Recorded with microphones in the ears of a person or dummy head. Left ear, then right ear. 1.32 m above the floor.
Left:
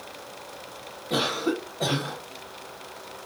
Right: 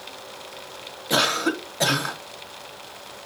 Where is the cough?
55° right (ahead or behind), 1.1 m.